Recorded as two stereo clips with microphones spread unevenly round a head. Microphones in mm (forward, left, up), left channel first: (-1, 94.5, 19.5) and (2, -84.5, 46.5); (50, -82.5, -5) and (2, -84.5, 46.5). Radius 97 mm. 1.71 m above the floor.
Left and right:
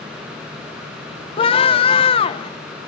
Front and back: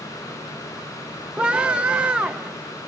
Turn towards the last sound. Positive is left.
turn(degrees=155)